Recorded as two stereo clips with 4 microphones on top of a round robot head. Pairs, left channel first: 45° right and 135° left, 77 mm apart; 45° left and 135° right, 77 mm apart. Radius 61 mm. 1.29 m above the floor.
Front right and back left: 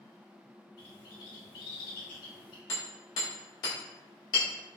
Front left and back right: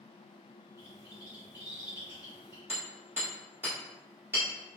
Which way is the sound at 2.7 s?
70° right.